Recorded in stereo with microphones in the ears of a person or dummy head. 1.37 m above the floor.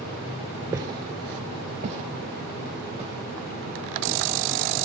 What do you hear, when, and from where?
0.7 s footsteps: 15° right (ahead or behind), 1.5 m; by 4.2 s 30° right (ahead or behind), 5 m